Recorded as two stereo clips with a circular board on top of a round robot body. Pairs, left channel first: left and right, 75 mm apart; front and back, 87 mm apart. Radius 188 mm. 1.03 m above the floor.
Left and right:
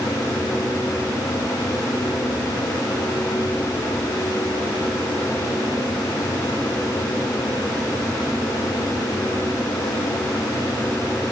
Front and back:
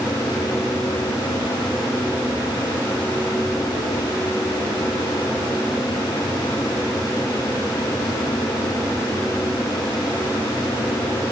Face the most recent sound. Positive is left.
No sound to turn to.